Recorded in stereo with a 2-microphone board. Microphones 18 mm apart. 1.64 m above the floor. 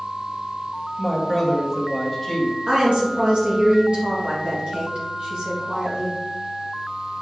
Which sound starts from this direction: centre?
A woman speaking, at 1.0 s.